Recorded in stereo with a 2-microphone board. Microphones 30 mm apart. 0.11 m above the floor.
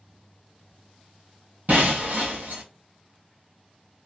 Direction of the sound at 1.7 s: 65° right (ahead or behind).